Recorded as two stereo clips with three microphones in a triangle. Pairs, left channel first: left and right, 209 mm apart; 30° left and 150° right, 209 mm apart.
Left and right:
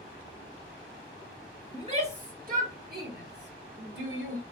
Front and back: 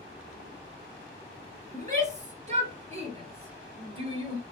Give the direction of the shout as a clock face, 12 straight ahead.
4 o'clock.